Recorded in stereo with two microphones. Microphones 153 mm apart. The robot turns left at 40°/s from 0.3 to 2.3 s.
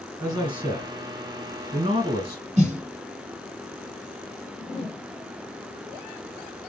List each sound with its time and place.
0.2 s a man speaking: 10° right, 1.9 m; by 2.4 s 90° right, 1.9 m
2.6 s a snare drum: 50° right (ahead or behind), 0.9 m
4.6 s a whoosh: 35° left (ahead or behind), 2 m